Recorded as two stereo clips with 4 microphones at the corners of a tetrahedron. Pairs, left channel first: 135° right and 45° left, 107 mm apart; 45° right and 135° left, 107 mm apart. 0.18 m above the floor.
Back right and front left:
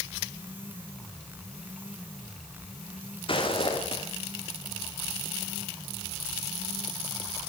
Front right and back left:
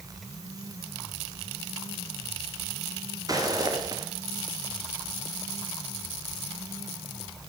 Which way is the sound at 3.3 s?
170° right.